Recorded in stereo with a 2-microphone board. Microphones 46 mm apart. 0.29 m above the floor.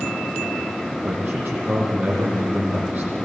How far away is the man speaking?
About 9.5 m.